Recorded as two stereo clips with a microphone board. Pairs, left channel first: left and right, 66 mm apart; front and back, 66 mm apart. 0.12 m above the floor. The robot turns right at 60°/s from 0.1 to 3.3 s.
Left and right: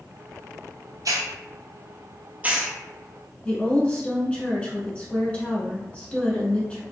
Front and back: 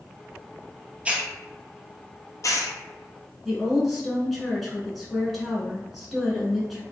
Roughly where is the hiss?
Right.